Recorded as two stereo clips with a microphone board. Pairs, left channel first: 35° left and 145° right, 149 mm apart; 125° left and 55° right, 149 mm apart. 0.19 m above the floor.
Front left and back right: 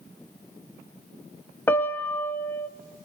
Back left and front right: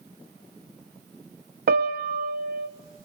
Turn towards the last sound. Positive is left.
turn(degrees=-40)